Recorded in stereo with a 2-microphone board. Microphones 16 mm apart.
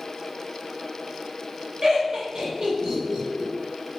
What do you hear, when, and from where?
1.8 s laughter: 55° right (ahead or behind), 1.6 m